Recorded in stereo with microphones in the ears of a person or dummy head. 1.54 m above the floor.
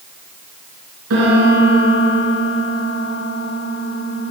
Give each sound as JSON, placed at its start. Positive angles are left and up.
{"t": 1.1, "sound": "a piano", "side_deg": -60, "distance_m": 3.0}